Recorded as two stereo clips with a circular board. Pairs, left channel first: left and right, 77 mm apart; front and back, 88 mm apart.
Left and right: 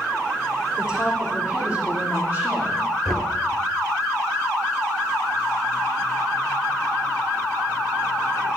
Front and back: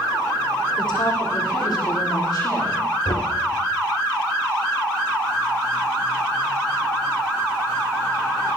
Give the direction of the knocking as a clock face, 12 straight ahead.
12 o'clock.